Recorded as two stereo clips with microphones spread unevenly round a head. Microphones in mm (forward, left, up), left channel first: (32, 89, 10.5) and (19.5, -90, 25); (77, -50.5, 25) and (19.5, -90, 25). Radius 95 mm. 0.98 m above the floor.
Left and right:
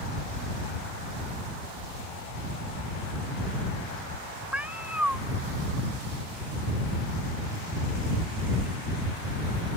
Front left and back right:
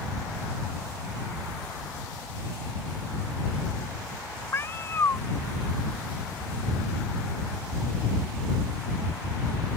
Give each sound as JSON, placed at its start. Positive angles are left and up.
{"t": 4.5, "sound": "a cat meowing", "azimuth_deg": -15}